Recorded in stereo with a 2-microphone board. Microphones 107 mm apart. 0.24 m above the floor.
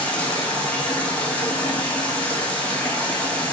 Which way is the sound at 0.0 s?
10° left (ahead or behind).